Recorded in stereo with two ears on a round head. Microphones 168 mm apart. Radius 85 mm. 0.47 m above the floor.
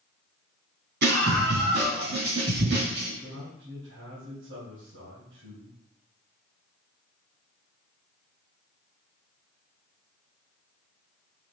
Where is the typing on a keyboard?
No typing on a keyboard in this recording.